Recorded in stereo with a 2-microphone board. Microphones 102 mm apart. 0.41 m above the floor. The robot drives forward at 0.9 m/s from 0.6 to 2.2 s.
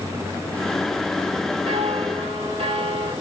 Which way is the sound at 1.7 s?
75° right (ahead or behind).